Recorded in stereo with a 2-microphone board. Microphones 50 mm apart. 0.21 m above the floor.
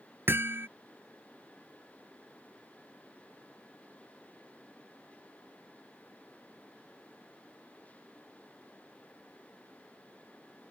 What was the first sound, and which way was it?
Hammering, 50° right (ahead or behind).